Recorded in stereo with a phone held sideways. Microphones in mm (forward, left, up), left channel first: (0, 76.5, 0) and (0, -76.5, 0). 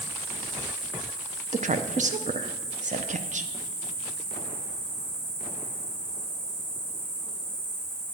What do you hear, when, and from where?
0.0 s an insect: 15° right (ahead or behind), 4 m
1.5 s a woman speaking: 50° right (ahead or behind), 0.6 m